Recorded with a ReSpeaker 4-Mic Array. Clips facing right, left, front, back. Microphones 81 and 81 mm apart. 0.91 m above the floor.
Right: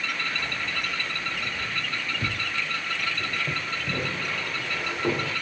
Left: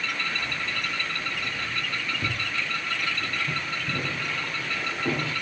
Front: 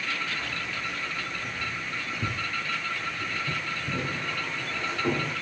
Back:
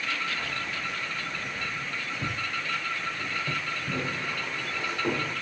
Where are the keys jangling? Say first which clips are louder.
Even, even; 130° right, 4 m; by 5.3 s 95° right, 2 m.